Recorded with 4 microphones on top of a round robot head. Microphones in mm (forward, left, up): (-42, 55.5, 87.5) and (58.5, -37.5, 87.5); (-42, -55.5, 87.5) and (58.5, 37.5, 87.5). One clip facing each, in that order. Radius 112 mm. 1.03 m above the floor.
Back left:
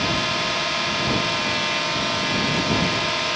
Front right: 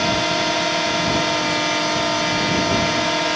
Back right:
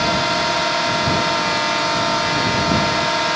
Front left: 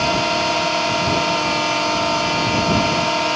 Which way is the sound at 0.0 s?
30° right.